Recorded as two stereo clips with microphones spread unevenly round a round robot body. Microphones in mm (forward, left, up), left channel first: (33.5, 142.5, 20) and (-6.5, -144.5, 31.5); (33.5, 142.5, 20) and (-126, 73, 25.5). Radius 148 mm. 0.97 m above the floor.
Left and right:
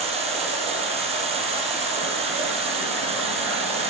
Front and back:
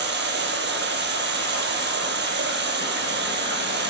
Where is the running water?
170° right, 4.5 m.